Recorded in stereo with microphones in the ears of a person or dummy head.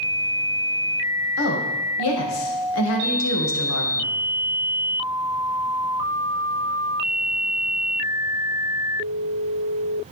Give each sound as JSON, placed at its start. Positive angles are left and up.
{"t": 1.4, "sound": "a woman speaking", "side_deg": 80, "distance_m": 1.4}